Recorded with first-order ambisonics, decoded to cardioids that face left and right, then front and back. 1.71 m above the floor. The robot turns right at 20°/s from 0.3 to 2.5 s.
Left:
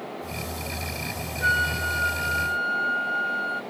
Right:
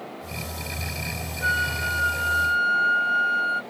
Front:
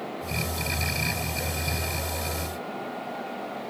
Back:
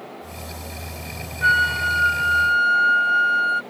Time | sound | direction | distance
1.4 | a flute | 175° left | ?